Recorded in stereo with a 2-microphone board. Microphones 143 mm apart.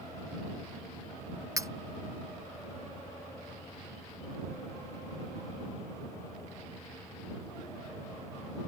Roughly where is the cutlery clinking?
Right.